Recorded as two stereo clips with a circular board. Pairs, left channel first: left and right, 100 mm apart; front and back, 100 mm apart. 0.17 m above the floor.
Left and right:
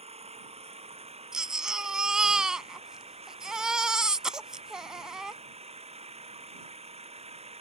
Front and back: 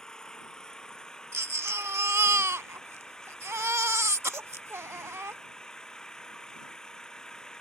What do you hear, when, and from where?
0.0 s an engine running: 85° right
1.3 s a baby crying: 165° right